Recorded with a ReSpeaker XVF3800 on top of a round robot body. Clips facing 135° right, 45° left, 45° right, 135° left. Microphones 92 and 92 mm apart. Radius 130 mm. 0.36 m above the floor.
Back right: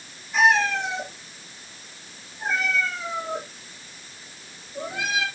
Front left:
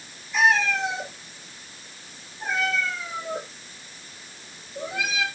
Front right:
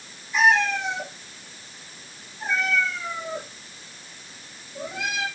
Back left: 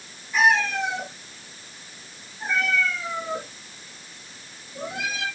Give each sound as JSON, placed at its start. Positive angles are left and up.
{"t": 0.3, "sound": "a cat meowing", "azimuth_deg": 170, "distance_m": 4.5}